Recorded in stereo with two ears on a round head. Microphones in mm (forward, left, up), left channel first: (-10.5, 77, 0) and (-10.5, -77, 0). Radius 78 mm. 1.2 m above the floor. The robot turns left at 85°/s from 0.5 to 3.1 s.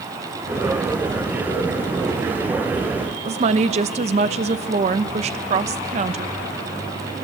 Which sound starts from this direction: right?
A woman speaking, at 3.2 s.